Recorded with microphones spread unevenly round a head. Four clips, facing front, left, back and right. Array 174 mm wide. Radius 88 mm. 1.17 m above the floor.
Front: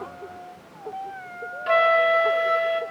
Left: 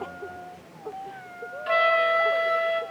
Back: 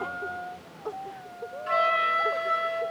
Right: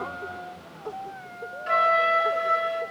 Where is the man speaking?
I don't hear a man speaking.